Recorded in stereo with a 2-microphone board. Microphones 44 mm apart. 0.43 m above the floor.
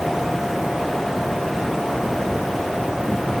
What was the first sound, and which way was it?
Only background noise.